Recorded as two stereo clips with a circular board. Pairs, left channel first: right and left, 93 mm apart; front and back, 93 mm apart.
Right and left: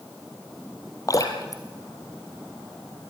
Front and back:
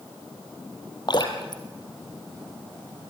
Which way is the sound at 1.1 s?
40° right.